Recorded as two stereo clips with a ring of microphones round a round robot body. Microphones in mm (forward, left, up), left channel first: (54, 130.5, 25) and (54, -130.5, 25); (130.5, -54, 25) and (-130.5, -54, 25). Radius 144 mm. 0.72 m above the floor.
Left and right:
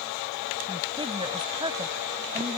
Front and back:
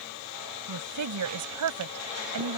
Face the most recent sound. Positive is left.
turn(degrees=-165)